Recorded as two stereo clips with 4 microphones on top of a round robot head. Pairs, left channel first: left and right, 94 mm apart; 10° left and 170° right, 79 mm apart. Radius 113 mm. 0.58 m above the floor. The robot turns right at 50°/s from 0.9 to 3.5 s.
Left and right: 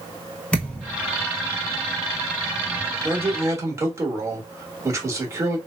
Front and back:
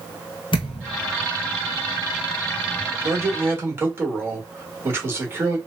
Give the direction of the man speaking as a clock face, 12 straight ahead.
5 o'clock.